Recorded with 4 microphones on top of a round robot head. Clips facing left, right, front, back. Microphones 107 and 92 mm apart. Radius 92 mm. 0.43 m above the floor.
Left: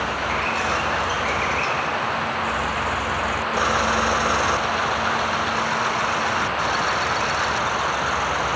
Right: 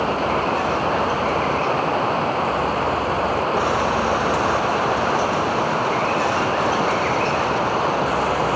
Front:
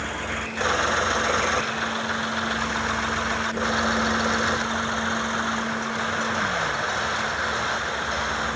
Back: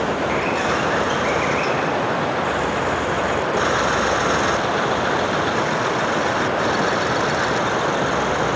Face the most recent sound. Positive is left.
turn(degrees=-140)